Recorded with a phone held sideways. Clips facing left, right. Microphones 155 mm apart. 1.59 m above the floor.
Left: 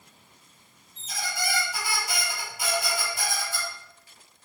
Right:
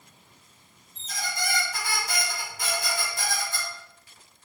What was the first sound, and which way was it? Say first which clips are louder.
A squeak: even; 10° left (ahead or behind).